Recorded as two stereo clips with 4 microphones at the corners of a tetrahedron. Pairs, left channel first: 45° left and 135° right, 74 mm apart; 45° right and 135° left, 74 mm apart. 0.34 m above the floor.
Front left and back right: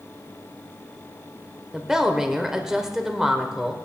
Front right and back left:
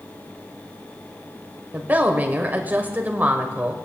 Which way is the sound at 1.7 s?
150° left.